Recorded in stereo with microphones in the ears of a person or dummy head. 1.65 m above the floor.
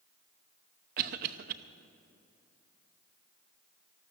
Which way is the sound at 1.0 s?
50° right (ahead or behind).